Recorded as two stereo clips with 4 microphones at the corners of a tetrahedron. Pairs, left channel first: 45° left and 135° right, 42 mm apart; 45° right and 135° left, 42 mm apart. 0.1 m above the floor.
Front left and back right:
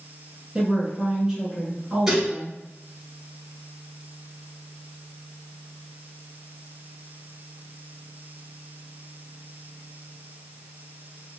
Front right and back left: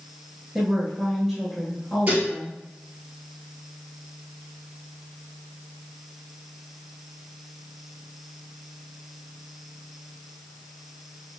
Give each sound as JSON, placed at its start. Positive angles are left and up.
{"t": 0.6, "sound": "a woman speaking", "azimuth_deg": -160, "distance_m": 1.1}
{"t": 2.1, "sound": "dishes clattering", "azimuth_deg": 145, "distance_m": 1.2}